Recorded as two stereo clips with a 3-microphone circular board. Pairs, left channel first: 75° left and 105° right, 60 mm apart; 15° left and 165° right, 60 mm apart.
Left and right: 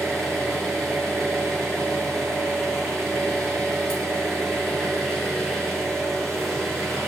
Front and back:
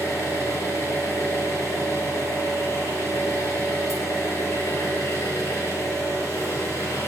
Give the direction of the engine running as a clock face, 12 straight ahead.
12 o'clock.